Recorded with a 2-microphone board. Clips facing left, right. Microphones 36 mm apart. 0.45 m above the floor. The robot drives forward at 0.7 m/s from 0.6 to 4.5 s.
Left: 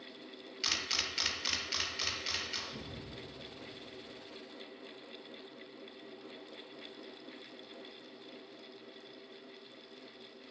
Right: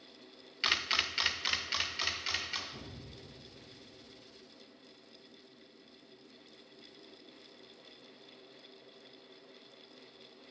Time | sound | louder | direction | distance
0.6 | a camera shutter | right 4 dB | 30° right (ahead or behind) | 0.5 m
2.7 | an explosion | left 3 dB | 80° left | 2.5 m